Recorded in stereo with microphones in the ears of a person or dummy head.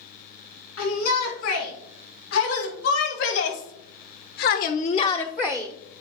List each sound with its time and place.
0.8 s a shout: 60° left (ahead or behind), 3.5 m; by 6.0 s 35° right (ahead or behind), 0.9 m